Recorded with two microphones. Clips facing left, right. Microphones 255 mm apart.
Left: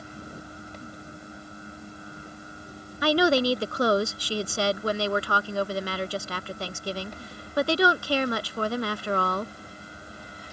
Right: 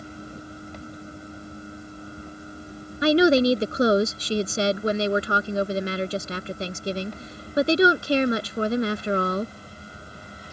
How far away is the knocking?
I don't hear knocking.